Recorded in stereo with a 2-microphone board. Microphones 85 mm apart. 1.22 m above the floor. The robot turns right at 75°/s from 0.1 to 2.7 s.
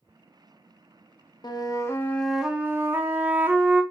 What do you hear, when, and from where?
1.4 s a flute: 110° left, 0.6 m; by 3.8 s 155° right, 0.6 m